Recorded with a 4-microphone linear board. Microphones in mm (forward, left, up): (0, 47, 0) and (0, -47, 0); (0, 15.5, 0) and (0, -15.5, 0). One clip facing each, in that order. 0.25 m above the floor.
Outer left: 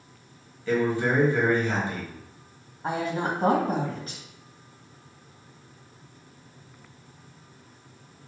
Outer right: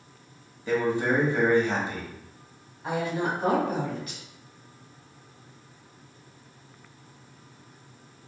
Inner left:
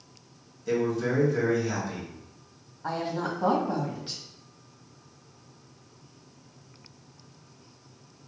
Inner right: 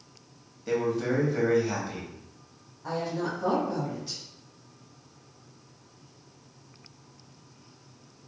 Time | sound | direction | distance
0.7 | a man speaking | 20° right (ahead or behind) | 1.4 m
2.8 | a woman speaking | 35° left (ahead or behind) | 1.5 m